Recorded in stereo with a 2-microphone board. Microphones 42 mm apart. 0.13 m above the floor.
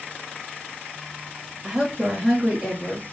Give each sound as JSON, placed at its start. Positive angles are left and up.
{"t": 1.6, "sound": "a woman speaking", "side_deg": -20, "distance_m": 1.5}